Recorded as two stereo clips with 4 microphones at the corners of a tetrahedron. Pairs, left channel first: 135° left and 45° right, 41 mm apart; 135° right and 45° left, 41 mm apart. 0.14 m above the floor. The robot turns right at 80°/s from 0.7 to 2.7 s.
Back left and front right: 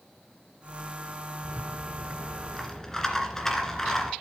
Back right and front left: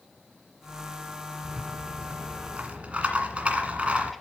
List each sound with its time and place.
1.4 s a rattle: 35° right, 1.7 m; by 4.1 s 65° left, 1.7 m